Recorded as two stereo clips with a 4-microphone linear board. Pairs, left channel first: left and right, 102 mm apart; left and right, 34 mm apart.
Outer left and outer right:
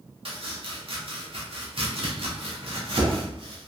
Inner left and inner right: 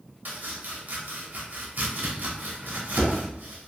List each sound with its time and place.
0.2 s chopping: 55° right (ahead or behind), 0.8 m